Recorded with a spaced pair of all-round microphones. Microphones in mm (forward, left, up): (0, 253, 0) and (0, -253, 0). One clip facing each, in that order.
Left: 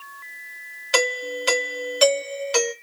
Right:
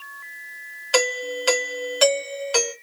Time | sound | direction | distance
0.9 | a doorbell | 40° left (ahead or behind) | 1.0 m